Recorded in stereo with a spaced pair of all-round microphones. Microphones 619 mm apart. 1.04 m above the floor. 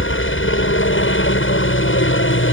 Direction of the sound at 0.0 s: 20° left (ahead or behind).